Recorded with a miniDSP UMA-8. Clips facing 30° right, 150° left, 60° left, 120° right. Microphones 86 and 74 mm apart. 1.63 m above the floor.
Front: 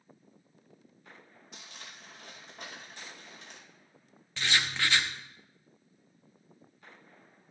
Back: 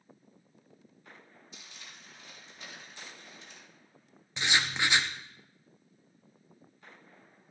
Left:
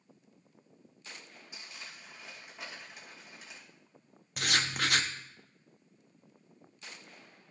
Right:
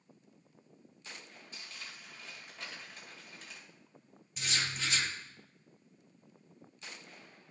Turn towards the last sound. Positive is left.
turn(degrees=80)